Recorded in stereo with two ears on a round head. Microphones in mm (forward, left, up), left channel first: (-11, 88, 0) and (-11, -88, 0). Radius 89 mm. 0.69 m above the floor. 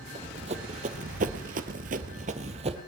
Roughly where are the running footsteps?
Right.